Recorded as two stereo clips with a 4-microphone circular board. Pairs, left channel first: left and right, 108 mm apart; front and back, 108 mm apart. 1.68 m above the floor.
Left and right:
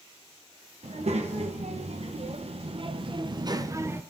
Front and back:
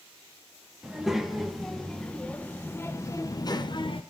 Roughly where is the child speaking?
Right.